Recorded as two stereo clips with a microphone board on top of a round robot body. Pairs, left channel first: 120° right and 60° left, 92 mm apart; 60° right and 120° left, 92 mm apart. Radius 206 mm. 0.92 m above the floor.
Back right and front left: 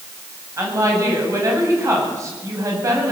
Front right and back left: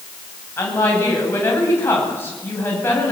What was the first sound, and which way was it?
A woman speaking, 5° left.